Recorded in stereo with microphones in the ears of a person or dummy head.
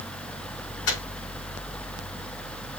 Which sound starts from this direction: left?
A microwave, at 0.9 s.